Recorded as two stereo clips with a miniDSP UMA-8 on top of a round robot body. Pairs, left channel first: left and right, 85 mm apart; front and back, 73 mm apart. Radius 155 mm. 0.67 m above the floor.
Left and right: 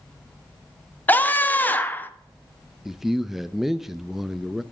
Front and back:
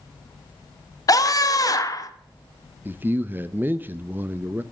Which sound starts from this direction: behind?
A man speaking, at 2.9 s.